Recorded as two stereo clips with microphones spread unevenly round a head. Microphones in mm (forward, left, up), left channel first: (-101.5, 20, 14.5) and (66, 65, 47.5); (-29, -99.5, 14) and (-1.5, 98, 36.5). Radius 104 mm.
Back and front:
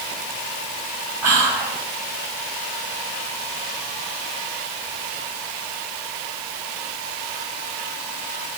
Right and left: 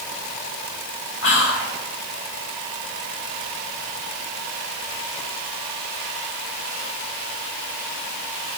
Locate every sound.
1.2 s whispering: 60° right, 1.7 m